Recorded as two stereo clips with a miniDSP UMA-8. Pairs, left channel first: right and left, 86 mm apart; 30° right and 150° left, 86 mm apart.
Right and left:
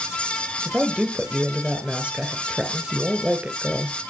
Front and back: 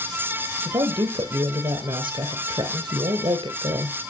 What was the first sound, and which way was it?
A woman speaking, 170° left.